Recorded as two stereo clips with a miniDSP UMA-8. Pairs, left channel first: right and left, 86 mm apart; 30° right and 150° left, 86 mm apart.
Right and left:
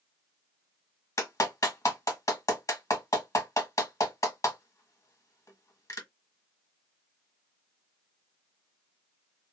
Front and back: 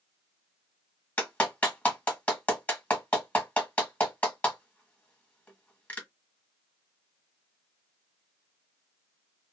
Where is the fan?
I don't hear a fan.